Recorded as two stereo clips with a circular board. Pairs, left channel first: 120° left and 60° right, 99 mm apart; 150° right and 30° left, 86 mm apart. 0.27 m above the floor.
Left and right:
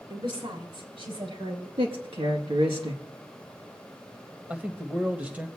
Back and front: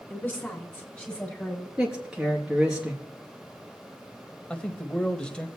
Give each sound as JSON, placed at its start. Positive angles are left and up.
{"t": 0.1, "sound": "a woman speaking", "azimuth_deg": -80, "distance_m": 4.5}
{"t": 1.8, "sound": "a man speaking", "azimuth_deg": -50, "distance_m": 3.5}
{"t": 4.5, "sound": "a man speaking", "azimuth_deg": -95, "distance_m": 0.9}